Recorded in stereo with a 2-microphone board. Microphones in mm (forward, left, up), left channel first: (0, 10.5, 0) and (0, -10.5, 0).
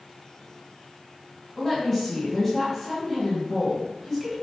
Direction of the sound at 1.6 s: 15° left (ahead or behind).